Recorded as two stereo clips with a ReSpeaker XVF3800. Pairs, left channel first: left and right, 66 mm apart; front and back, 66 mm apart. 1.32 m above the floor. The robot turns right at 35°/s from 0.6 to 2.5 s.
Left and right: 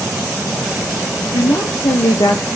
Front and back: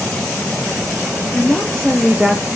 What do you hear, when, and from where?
1.3 s a woman speaking: 60° left, 0.5 m; by 2.5 s 100° left, 0.5 m